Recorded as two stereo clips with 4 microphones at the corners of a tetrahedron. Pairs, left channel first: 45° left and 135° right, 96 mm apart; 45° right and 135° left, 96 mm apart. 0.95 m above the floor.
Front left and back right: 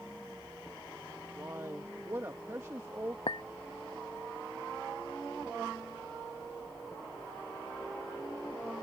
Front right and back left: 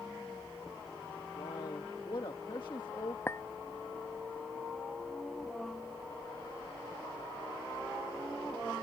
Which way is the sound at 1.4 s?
75° right.